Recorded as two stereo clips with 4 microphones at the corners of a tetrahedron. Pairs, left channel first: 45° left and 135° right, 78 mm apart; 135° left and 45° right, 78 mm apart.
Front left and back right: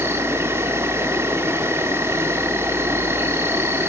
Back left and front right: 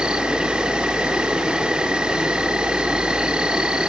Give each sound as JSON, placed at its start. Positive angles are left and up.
{"t": 0.0, "sound": "an insect", "azimuth_deg": -115, "distance_m": 0.8}